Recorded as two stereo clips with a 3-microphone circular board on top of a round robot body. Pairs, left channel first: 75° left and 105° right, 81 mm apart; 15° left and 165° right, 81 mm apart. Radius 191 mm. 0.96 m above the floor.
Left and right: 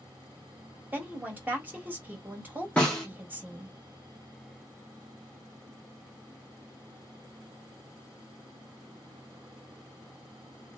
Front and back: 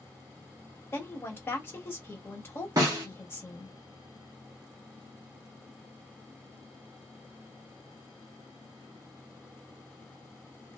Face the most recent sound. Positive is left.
turn(degrees=150)